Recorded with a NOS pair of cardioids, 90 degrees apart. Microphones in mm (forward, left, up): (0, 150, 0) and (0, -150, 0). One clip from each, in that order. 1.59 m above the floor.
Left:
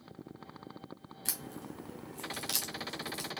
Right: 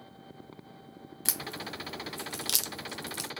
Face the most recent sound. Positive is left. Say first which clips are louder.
# right 7 dB
turn(degrees=-30)